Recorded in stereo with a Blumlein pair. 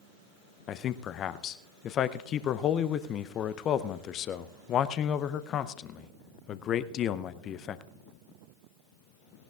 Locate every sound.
0.7 s a man speaking: 30° left, 0.6 m